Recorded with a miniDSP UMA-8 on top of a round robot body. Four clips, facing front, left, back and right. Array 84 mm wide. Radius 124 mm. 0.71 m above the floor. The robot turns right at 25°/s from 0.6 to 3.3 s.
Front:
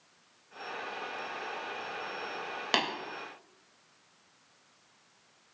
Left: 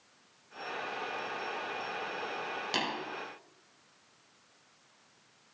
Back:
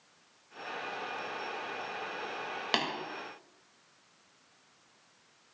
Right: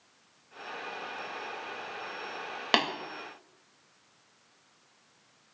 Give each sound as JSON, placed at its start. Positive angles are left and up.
{"t": 2.7, "sound": "tapping", "azimuth_deg": -85, "distance_m": 3.0}